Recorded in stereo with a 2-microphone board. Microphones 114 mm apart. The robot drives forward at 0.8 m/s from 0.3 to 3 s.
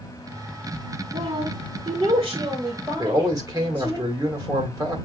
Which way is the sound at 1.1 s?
45° right (ahead or behind).